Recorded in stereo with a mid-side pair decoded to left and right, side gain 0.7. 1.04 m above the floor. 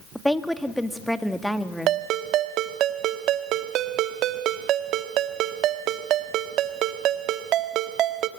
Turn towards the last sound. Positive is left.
turn(degrees=-50)